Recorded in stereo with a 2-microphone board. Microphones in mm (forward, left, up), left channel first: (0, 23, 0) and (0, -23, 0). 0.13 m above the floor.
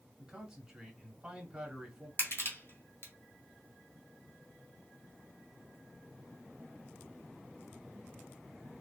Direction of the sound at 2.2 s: 60° left (ahead or behind).